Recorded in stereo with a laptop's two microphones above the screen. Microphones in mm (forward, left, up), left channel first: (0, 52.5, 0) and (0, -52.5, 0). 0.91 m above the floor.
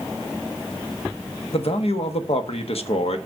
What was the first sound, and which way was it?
A man speaking, 70° left (ahead or behind).